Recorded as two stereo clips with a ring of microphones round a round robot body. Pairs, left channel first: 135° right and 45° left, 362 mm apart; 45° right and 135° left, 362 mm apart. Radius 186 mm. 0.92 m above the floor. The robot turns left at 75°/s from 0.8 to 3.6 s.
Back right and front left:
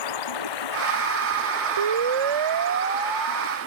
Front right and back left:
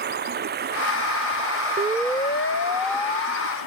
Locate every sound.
0.0 s running water: 160° right; by 3.7 s 10° right
1.8 s a siren: 65° left; by 3.6 s 75° right